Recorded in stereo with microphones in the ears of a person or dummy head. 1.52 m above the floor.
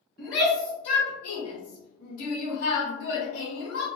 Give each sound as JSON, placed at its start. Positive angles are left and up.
{"t": 0.2, "sound": "a shout", "side_deg": 5, "distance_m": 1.6}